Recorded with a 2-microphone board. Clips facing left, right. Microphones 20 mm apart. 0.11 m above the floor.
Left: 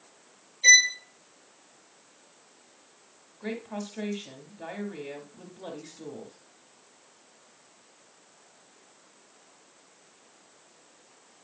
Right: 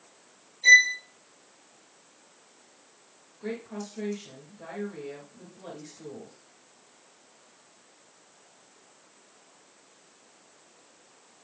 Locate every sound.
0.6 s a violin: 40° left (ahead or behind), 1.1 m
3.4 s a woman speaking: 30° left (ahead or behind), 1.6 m